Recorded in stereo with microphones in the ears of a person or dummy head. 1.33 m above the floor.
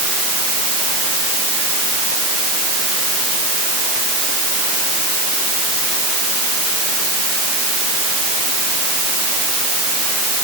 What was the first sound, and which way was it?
Only background noise.